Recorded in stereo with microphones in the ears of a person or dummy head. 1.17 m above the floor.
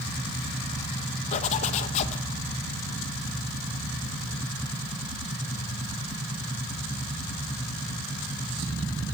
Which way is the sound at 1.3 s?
40° left (ahead or behind).